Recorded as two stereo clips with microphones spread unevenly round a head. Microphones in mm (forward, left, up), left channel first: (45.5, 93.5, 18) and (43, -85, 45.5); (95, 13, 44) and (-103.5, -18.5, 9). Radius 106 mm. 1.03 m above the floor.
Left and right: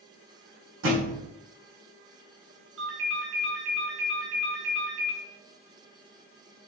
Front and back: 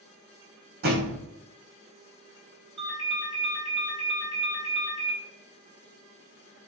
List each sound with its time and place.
0.8 s a thud: 125° right, 5 m
2.8 s a ringtone: 105° right, 4 m